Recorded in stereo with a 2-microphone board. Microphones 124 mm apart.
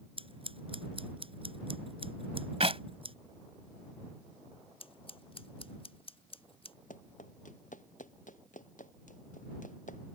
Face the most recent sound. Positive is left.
turn(degrees=80)